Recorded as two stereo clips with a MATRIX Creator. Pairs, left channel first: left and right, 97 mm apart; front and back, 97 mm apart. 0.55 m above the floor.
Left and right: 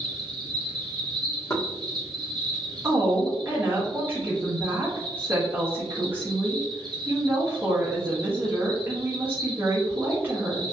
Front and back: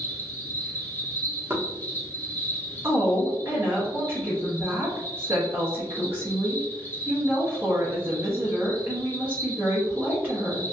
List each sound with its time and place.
0.0 s an insect: 60° right, 0.8 m
1.5 s knocking: 130° left, 0.9 m
2.8 s a woman speaking: 135° right, 1.0 m